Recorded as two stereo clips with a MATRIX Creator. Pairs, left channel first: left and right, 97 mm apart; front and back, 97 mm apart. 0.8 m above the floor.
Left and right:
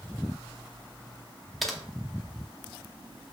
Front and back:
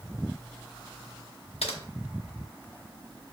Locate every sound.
1.6 s typing on a keyboard: straight ahead, 0.7 m